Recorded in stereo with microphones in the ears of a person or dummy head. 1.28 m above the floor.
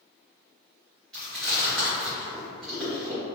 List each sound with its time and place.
1.1 s chewing: centre (ahead or behind), 0.9 m